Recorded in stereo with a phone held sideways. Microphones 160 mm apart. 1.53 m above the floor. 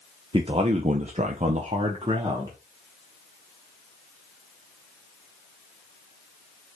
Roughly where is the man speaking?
Right.